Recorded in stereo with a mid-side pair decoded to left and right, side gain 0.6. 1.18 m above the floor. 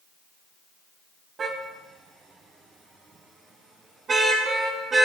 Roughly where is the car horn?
Ahead right.